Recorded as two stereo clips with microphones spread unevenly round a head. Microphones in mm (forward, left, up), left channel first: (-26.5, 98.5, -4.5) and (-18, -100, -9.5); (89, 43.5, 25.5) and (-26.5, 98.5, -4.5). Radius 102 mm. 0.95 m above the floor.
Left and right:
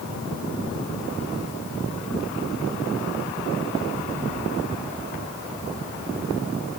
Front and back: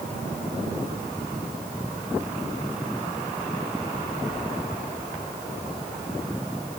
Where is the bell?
No bell in this recording.